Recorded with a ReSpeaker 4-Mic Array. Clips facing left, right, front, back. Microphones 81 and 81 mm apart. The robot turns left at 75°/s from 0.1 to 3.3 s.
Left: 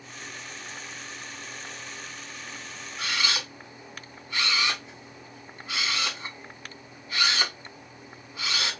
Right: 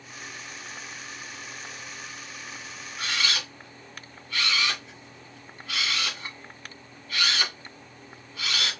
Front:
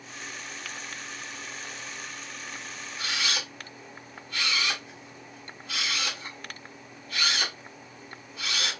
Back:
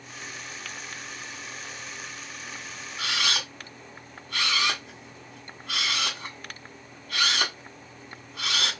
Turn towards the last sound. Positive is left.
turn(degrees=160)